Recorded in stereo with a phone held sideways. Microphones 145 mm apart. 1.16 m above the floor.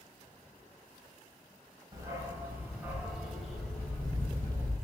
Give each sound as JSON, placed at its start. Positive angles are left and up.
{"t": 1.9, "sound": "a dog barking", "side_deg": -25, "distance_m": 2.5}